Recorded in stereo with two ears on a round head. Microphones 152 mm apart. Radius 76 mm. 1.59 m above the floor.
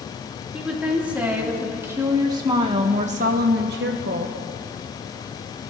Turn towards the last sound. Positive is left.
turn(degrees=-55)  # may be behind; listen again after turning